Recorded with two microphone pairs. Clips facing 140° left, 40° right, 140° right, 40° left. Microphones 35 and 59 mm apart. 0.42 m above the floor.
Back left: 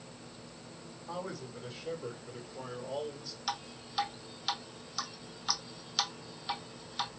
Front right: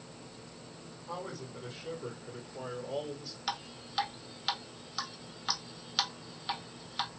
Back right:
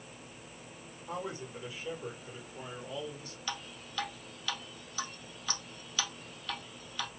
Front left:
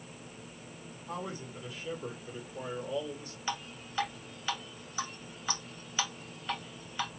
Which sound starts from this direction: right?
A man speaking, at 1.1 s.